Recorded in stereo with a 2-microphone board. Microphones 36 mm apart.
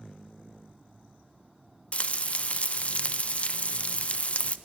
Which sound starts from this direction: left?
Frying, at 1.9 s.